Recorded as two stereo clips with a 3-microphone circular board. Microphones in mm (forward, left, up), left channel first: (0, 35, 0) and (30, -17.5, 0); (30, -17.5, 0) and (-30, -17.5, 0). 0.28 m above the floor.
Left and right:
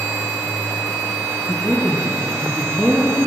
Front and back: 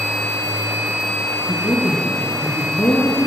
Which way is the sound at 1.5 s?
25° left.